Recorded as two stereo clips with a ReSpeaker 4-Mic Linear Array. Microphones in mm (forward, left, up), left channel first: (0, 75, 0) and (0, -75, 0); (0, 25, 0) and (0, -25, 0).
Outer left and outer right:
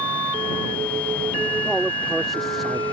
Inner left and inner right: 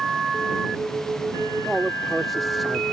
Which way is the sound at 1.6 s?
Centre (ahead or behind).